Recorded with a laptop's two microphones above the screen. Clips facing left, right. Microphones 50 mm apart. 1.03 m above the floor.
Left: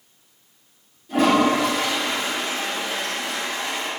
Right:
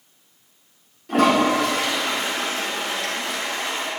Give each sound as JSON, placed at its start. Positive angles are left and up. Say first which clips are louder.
{"t": 1.1, "sound": "a toilet flushing", "louder": "even", "side_deg": -75, "distance_m": 3.0}